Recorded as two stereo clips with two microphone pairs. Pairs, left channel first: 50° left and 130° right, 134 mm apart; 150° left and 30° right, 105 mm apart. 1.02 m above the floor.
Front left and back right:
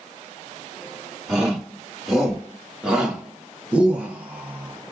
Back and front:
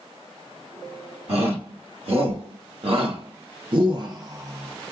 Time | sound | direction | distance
1.3 | a shout | 40° right | 2 m